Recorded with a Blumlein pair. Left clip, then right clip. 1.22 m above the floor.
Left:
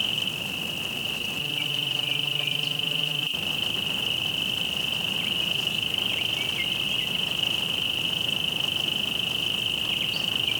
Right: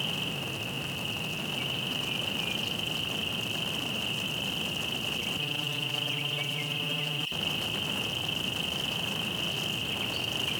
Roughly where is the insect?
Ahead.